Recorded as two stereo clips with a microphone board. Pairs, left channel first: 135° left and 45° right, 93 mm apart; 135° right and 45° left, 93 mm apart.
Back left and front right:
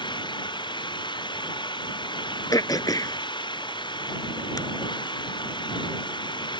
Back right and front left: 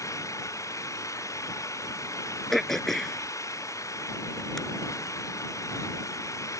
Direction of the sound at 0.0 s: 170° left.